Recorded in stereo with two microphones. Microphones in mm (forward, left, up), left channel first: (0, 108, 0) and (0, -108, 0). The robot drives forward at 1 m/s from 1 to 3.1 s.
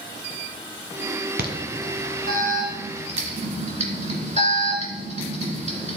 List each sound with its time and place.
1.4 s an alarm: 55° right (ahead or behind), 1.4 m; by 6.0 s 35° right (ahead or behind), 2 m